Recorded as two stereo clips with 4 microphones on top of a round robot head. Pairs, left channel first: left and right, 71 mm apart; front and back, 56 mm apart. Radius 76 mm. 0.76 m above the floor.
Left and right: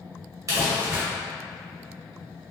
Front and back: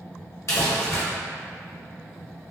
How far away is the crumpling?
About 1.4 m.